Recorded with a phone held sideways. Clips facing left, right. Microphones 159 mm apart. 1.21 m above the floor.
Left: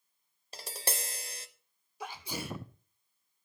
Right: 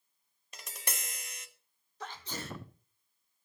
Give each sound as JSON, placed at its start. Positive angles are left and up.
{"t": 0.5, "sound": "tapping", "side_deg": 30, "distance_m": 0.7}
{"t": 2.0, "sound": "a sneeze", "side_deg": 10, "distance_m": 0.6}